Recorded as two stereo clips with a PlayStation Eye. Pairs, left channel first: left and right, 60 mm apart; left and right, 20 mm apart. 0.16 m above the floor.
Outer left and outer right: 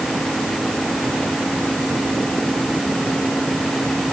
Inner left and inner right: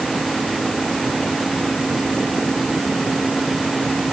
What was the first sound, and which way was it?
Only background noise.